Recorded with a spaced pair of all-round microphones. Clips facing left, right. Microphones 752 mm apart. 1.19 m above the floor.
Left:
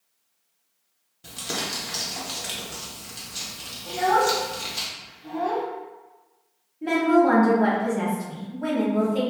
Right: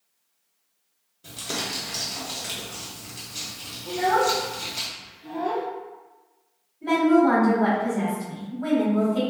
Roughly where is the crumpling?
Left.